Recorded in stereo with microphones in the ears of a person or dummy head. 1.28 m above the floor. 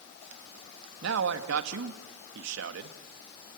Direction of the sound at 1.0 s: 75° right (ahead or behind).